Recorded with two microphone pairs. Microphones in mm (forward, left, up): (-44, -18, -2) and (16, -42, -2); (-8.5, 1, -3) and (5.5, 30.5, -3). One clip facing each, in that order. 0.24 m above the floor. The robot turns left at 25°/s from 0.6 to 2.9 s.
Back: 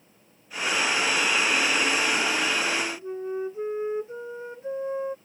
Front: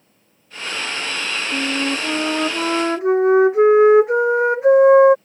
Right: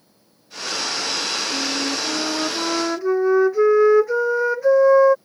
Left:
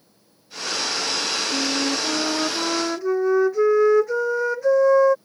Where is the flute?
Straight ahead; by 5.2 s 35° right.